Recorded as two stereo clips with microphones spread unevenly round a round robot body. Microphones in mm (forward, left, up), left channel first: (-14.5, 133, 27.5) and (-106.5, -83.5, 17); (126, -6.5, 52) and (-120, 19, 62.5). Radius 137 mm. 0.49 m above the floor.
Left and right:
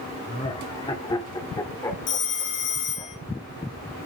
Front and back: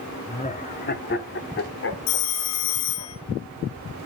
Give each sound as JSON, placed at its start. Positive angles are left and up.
{"t": 0.3, "sound": "laughter", "azimuth_deg": 25, "distance_m": 1.0}
{"t": 2.1, "sound": "a phone ringing", "azimuth_deg": 15, "distance_m": 2.5}